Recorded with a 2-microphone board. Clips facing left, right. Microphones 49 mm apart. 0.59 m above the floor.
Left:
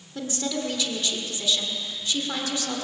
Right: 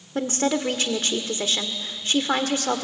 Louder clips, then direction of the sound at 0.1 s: Right 6 dB; 45° right (ahead or behind).